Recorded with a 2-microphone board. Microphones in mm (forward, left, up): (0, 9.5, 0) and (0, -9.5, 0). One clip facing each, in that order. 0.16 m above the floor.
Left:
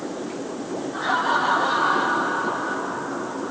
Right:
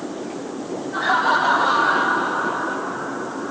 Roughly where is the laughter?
Right.